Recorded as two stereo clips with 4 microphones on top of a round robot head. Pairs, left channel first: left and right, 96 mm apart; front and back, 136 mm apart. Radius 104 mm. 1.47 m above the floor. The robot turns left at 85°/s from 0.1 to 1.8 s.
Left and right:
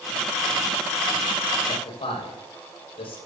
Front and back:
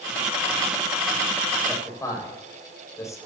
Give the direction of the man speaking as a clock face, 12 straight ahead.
9 o'clock.